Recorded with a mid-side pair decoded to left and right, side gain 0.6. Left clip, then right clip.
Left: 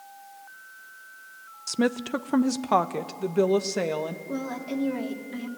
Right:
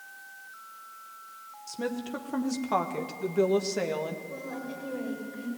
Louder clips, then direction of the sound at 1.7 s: Left 8 dB; 55° left.